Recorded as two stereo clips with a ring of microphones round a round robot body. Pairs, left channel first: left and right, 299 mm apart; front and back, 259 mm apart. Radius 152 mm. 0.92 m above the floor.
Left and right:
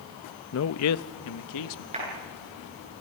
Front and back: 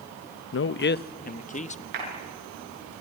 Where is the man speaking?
40° left, 0.6 m; by 1.8 s 65° left, 1.3 m.